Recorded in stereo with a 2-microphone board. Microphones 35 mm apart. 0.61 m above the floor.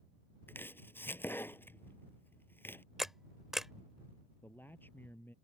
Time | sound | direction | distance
0.5 | chopping | 80° left | ?
3.0 | a camera shutter | 10° right (ahead or behind) | ?
4.4 | a man speaking | 65° left (ahead or behind) | ?